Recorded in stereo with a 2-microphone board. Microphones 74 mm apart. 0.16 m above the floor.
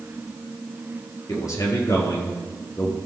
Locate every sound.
1.3 s a man speaking: 50° left (ahead or behind), 4 m